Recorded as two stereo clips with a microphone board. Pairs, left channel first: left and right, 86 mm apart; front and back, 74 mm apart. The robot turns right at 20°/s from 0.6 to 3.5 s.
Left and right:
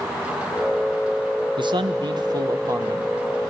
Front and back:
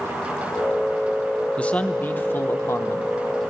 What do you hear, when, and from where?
1.6 s a man speaking: 75° right, 1.0 m; by 3.1 s 40° right, 1.0 m